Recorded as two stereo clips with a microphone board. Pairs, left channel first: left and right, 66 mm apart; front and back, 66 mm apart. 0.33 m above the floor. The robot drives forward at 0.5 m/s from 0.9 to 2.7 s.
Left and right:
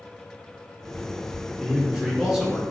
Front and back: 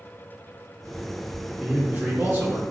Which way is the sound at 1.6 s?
135° right.